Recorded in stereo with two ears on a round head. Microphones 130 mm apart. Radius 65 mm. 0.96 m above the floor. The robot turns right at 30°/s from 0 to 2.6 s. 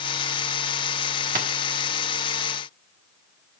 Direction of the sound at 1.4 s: 60° right (ahead or behind).